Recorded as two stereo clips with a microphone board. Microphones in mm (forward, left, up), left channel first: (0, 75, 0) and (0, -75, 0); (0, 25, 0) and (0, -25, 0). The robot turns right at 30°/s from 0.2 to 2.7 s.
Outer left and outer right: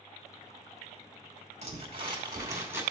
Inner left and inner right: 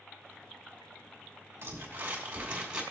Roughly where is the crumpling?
Ahead right.